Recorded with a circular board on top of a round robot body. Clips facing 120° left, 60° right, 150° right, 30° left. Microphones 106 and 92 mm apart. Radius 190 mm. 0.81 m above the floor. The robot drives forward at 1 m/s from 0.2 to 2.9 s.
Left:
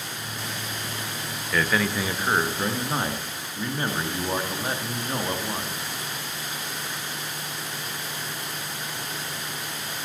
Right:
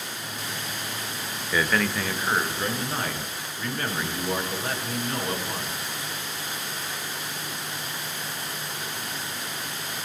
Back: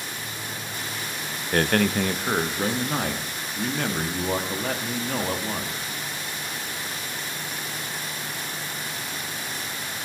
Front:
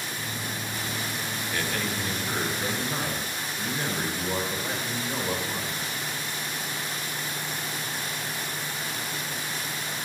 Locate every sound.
1.5 s a man speaking: 140° right, 0.7 m; by 5.8 s 170° right, 1.8 m